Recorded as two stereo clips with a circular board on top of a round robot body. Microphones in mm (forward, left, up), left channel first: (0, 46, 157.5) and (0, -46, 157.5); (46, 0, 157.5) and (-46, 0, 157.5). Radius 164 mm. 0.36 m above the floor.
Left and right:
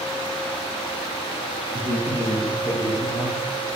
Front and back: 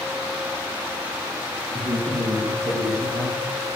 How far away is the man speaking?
About 5 m.